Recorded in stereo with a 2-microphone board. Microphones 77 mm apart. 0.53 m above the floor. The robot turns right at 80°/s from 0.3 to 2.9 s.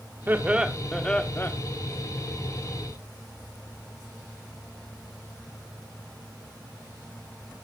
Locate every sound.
0.3 s laughter: 45° right, 1.1 m; by 1.5 s 55° left, 1.1 m